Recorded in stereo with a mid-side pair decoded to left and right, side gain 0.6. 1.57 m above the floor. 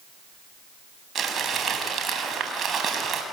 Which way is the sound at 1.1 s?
35° right.